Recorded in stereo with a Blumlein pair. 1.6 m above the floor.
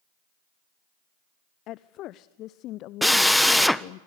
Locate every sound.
1.7 s a woman speaking: 35° left, 0.6 m
3.0 s a drill: straight ahead, 0.7 m